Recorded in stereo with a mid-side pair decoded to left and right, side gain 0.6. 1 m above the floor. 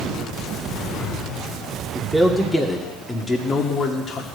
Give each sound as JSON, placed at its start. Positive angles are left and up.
{"t": 1.9, "sound": "a man speaking", "azimuth_deg": 0, "distance_m": 2.0}